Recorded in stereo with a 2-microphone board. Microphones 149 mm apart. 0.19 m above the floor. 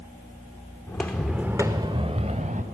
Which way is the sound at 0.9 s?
20° left (ahead or behind).